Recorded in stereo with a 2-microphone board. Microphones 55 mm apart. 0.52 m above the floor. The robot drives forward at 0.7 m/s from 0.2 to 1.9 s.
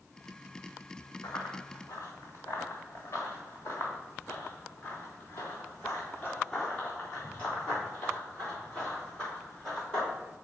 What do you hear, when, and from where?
1.2 s running footsteps: 75° left (ahead or behind), 2.5 m; by 10.1 s 15° left (ahead or behind), 7 m